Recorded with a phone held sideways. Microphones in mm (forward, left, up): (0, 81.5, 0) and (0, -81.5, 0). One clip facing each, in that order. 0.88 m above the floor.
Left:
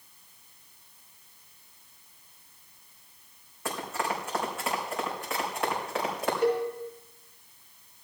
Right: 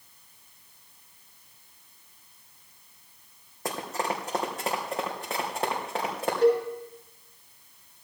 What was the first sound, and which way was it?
Running footsteps, 40° right (ahead or behind).